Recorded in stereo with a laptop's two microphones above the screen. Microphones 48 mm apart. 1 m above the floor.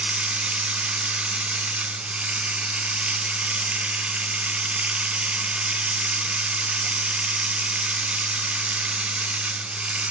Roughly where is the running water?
Right.